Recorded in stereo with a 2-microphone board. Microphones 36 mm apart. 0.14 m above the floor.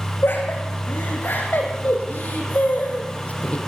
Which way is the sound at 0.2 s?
75° left (ahead or behind).